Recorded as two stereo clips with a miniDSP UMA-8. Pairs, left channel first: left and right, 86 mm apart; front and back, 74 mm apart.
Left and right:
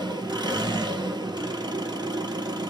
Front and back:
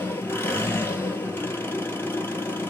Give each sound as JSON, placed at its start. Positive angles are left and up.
{"t": 0.0, "sound": "an engine running", "azimuth_deg": -60, "distance_m": 1.5}